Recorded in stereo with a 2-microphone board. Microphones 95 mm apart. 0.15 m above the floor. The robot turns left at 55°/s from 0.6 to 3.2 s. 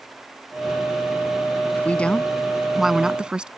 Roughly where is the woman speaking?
Centre.